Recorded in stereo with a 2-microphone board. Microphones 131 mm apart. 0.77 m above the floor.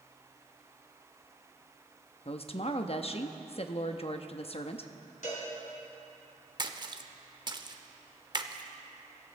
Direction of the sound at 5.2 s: 65° left (ahead or behind).